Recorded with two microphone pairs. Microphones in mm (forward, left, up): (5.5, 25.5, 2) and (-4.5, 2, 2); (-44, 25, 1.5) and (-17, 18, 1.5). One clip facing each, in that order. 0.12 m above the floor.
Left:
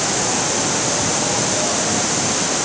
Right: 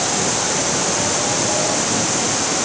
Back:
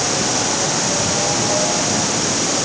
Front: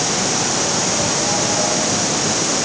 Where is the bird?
I don't hear a bird.